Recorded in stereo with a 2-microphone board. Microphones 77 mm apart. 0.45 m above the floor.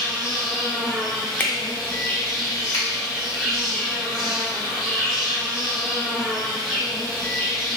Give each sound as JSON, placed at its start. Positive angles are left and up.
{"t": 0.0, "sound": "an insect", "side_deg": 5, "distance_m": 1.6}
{"t": 1.4, "sound": "a finger snap", "side_deg": 20, "distance_m": 0.5}
{"t": 2.7, "sound": "a finger snap", "side_deg": 40, "distance_m": 1.4}